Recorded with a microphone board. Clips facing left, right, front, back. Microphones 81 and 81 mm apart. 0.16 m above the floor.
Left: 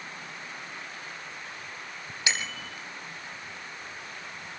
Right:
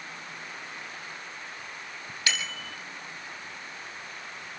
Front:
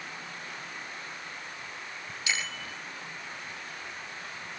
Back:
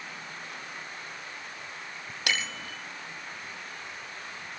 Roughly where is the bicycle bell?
Behind.